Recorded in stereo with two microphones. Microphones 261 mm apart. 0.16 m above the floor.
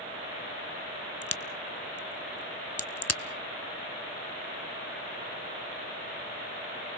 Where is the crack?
70° left (ahead or behind), 0.7 m.